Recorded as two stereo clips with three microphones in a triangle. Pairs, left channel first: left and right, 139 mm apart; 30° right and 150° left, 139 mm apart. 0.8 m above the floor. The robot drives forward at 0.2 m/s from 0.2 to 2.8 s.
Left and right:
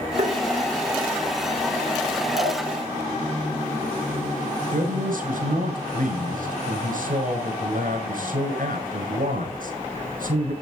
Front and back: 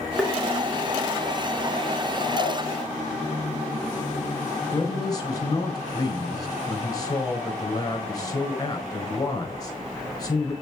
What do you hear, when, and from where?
0.2 s tapping: 120° right, 1.9 m
2.3 s a dog barking: 140° right, 4.5 m
4.7 s a man speaking: 90° right, 4 m